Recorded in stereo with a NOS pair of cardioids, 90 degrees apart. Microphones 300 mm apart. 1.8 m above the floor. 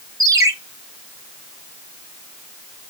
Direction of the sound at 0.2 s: 10° right.